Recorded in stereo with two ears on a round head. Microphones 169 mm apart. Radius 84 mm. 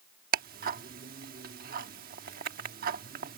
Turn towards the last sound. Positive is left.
turn(degrees=-50)  # may be behind; listen again after turning